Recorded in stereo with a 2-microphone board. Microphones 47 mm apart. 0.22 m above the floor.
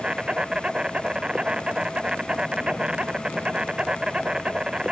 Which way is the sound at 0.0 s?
20° right (ahead or behind).